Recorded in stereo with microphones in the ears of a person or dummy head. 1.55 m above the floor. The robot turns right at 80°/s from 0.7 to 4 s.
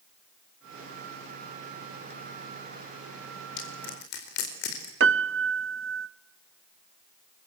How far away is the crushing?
About 4.5 m.